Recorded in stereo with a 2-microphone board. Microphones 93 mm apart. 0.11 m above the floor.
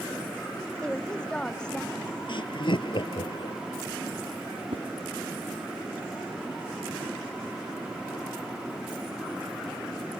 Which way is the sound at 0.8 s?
10° left (ahead or behind).